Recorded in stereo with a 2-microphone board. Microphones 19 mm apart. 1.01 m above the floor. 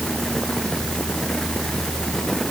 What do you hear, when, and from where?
Only background noise.